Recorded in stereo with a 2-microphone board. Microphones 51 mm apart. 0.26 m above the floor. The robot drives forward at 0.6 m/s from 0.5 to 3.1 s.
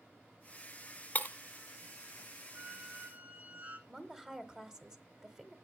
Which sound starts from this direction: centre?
A woman speaking, at 3.9 s.